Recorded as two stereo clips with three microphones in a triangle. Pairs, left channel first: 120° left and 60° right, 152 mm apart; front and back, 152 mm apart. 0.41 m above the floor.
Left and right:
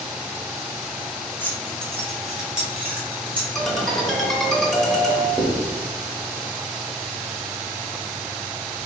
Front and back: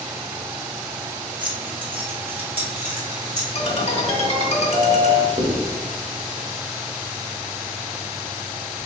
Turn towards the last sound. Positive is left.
turn(degrees=-145)